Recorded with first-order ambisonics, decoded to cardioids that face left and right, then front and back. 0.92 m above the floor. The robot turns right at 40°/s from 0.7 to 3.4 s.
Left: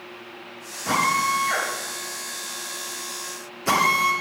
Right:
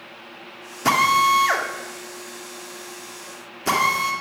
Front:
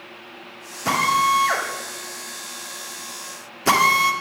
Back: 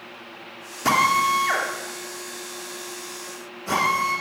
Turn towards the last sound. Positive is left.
turn(degrees=-20)